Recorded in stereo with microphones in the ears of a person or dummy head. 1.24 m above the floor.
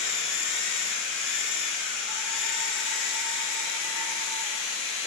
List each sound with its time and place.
0.0 s a machine running: 55° left (ahead or behind), 7 m